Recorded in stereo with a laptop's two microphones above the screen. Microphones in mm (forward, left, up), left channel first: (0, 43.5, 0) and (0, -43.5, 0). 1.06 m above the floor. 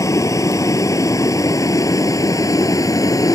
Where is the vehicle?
40° left (ahead or behind).